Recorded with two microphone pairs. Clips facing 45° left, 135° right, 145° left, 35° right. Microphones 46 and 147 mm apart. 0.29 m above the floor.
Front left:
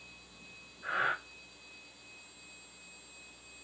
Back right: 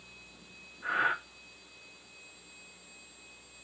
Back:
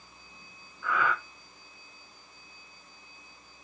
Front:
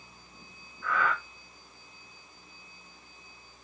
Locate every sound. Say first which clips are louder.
0.8 s breathing: back right 3 dB, even; 145° right, 2 m